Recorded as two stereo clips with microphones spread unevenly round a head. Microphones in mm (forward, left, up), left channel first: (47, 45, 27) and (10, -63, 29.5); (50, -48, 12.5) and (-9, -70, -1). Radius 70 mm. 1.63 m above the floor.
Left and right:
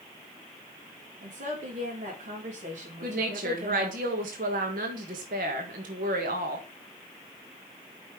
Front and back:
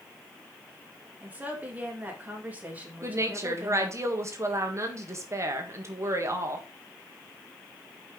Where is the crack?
No crack in this recording.